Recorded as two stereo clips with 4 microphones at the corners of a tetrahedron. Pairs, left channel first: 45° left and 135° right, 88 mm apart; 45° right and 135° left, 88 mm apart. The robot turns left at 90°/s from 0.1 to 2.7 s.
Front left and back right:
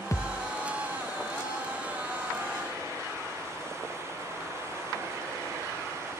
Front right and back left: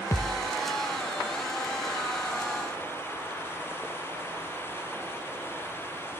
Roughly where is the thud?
Ahead.